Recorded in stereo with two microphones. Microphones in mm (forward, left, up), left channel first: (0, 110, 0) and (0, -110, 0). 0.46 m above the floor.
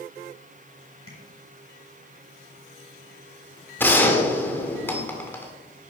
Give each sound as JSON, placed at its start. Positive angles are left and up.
{"t": 1.1, "sound": "tapping", "side_deg": 80, "distance_m": 6.5}
{"t": 3.8, "sound": "a gunshot", "side_deg": 10, "distance_m": 1.6}